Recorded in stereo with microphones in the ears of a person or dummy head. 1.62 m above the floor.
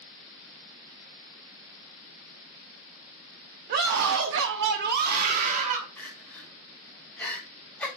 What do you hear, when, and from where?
3.7 s a scream: 45° right (ahead or behind), 0.7 m
6.0 s crying: 5° left (ahead or behind), 2.5 m